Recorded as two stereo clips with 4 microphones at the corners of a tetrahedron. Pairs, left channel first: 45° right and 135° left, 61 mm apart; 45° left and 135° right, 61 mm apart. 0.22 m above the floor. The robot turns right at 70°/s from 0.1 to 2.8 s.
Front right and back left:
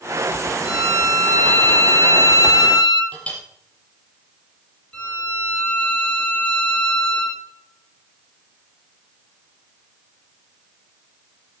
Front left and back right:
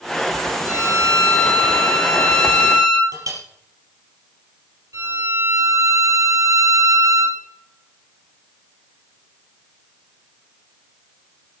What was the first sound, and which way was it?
A violin, 75° left.